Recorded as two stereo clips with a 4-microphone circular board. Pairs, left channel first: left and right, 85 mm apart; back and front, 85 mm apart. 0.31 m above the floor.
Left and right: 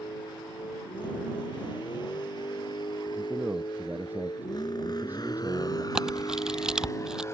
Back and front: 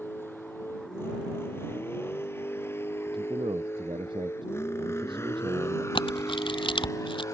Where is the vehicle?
115° left; by 7.3 s 140° left.